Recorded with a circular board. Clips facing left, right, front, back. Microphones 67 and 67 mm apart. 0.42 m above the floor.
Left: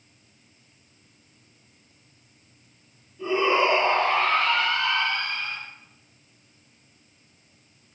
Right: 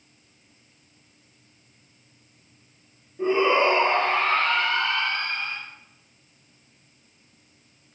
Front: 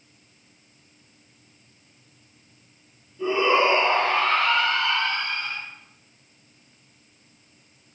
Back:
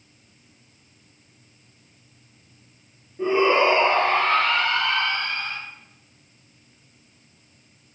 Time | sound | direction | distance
3.2 | a shout | 135° right | 8 m